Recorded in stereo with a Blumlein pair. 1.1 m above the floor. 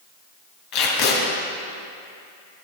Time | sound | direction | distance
0.7 | tape being pulled | 40° left | 2.5 m